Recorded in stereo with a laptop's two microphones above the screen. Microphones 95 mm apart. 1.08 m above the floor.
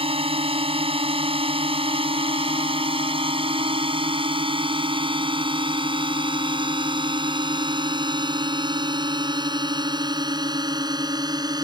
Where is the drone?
80° right; by 11.7 s 45° right (ahead or behind).